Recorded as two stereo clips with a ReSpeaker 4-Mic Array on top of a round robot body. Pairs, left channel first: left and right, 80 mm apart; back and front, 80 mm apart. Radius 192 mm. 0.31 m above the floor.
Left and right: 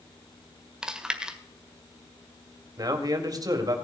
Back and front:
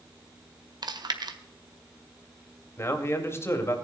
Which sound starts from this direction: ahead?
Chewing, at 0.8 s.